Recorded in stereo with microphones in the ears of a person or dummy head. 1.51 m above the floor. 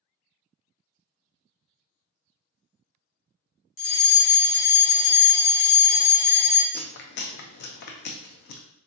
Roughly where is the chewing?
Left.